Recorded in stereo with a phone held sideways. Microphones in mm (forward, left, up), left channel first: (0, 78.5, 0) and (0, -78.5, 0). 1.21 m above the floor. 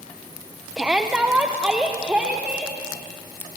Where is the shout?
5° right (ahead or behind), 0.8 m; by 2.8 s 10° right (ahead or behind), 2 m.